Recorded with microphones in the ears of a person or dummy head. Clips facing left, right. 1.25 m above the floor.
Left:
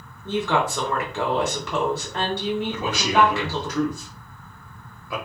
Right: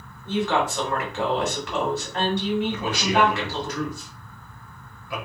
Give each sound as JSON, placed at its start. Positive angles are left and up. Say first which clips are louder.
{"t": 0.2, "sound": "a woman speaking", "louder": "even", "side_deg": 75, "distance_m": 1.3}
{"t": 2.7, "sound": "a man speaking", "louder": "left 1 dB", "side_deg": 65, "distance_m": 1.1}